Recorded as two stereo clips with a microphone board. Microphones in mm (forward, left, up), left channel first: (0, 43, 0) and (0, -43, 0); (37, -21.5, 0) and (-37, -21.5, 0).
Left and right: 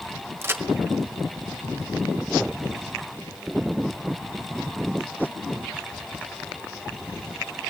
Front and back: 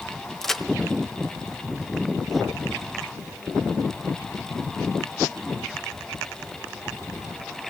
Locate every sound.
0.4 s a crack: 80° right, 1.4 m